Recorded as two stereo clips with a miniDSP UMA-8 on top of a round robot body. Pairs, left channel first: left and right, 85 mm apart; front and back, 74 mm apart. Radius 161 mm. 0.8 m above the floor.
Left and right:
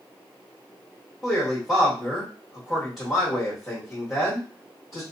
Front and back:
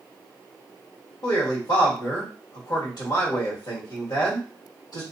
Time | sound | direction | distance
1.2 | a man speaking | straight ahead | 1.6 m